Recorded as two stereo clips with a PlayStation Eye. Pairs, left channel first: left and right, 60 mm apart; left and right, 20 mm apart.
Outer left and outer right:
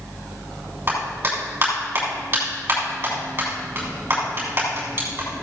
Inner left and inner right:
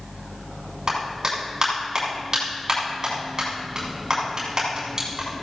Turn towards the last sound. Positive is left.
turn(degrees=-35)  # may be behind; listen again after turning